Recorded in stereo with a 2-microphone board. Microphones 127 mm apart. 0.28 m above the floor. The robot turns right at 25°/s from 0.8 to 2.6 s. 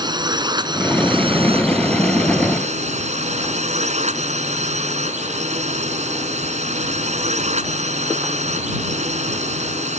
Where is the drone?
140° right; by 10.0 s 95° right.